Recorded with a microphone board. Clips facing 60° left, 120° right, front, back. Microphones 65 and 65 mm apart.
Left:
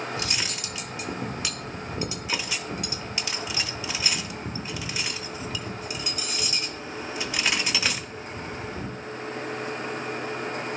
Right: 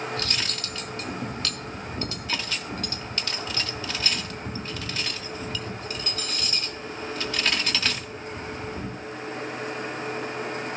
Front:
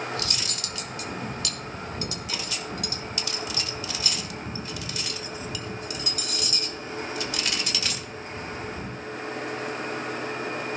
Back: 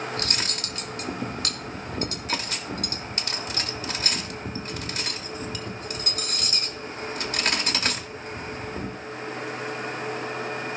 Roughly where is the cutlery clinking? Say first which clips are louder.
Even, back 2 dB; behind left.